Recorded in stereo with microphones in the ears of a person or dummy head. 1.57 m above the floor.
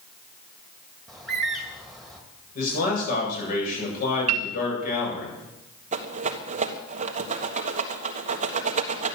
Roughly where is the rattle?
Right.